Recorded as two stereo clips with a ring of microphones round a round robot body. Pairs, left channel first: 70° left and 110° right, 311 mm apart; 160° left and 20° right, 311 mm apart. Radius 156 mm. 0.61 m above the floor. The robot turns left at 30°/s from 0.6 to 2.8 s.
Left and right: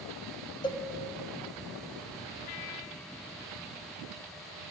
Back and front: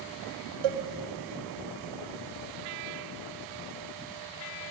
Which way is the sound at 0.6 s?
10° right.